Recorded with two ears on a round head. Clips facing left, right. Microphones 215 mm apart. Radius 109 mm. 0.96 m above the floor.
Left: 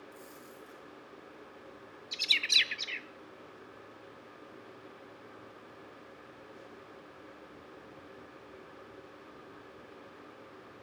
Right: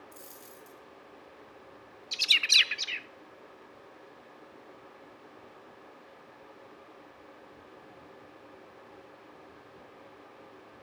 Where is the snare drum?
I don't hear a snare drum.